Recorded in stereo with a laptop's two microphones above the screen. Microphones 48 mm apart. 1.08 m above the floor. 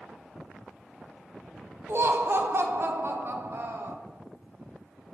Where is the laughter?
50° right (ahead or behind), 0.5 m.